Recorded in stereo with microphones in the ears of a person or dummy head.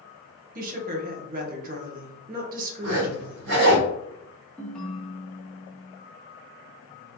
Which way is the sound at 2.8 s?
65° right (ahead or behind).